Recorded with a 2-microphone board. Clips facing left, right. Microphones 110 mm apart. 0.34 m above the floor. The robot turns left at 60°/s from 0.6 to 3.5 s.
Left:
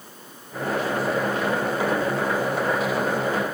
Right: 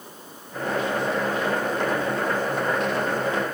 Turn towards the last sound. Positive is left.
No sound to turn to.